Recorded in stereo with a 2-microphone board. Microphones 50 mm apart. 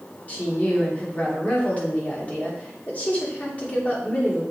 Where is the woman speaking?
30° left (ahead or behind), 2.5 m.